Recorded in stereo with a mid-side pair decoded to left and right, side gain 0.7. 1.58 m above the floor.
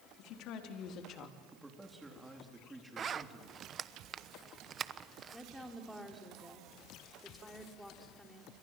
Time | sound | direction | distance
0.2 | a woman speaking | 60° left | 4 m
1.5 | a man speaking | 5° right | 3.5 m
3.0 | a zipper | 35° right | 1.1 m
5.3 | a woman speaking | 5° left | 3.5 m